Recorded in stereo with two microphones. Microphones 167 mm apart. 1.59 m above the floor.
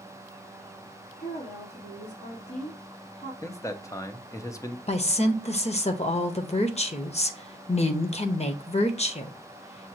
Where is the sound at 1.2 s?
75° left (ahead or behind), 3 m.